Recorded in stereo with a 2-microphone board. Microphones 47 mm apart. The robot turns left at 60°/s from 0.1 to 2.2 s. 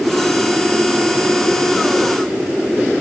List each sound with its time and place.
Only background noise.